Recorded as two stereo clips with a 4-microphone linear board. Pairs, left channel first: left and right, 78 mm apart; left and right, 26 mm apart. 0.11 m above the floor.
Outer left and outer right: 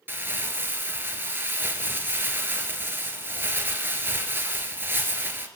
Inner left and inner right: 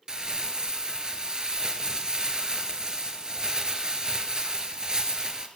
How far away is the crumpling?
About 1.6 m.